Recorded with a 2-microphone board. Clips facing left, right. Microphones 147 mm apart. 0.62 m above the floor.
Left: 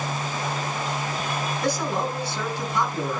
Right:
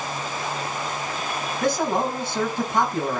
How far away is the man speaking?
About 5 m.